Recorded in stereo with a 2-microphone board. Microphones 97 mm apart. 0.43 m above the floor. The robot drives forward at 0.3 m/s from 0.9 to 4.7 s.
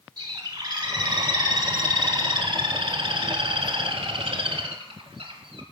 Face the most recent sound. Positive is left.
turn(degrees=-70)  # may be behind; listen again after turning